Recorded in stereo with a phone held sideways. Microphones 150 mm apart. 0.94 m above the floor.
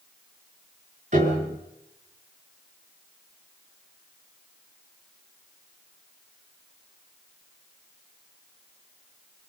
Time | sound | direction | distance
1.1 | a piano | 55° right (ahead or behind) | 6 m